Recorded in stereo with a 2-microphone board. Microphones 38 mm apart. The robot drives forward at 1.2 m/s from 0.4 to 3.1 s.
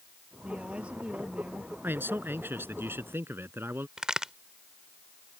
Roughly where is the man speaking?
Right.